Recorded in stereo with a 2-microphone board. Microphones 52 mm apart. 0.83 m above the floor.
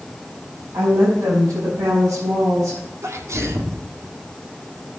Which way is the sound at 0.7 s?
75° right (ahead or behind).